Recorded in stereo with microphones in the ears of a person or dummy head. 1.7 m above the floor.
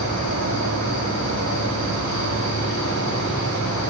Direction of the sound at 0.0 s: 80° left.